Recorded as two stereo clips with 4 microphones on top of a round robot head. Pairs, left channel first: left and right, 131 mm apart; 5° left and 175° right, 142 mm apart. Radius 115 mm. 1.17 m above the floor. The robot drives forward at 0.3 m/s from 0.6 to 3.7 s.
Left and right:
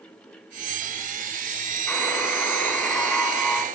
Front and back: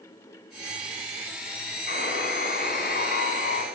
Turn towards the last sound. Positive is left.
turn(degrees=5)